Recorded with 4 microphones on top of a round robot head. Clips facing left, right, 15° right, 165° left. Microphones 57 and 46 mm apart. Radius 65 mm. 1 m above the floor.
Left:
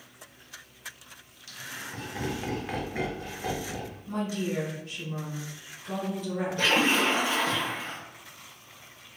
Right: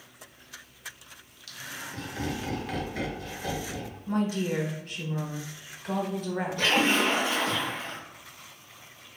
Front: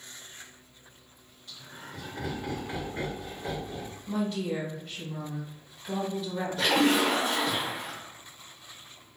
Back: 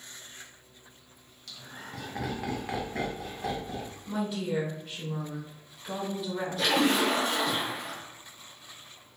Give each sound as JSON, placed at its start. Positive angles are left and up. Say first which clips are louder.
{"t": 1.5, "sound": "laughter", "louder": "even, back 1 dB", "azimuth_deg": 155, "distance_m": 1.4}
{"t": 4.1, "sound": "a woman speaking", "louder": "right 3 dB, front 1 dB", "azimuth_deg": -110, "distance_m": 1.0}
{"t": 6.6, "sound": "a splash", "louder": "even, front 1 dB", "azimuth_deg": 30, "distance_m": 0.7}